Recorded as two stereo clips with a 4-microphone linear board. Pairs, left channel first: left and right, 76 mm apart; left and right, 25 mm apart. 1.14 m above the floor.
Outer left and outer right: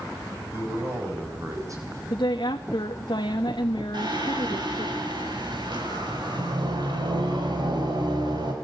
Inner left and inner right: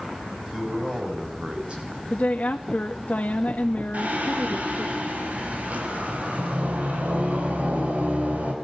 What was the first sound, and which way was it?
A man speaking, 30° right (ahead or behind).